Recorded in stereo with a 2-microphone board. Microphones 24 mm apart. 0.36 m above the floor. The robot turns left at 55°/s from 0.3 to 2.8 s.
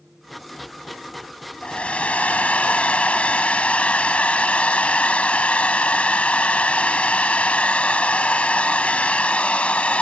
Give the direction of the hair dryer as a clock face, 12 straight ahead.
8 o'clock.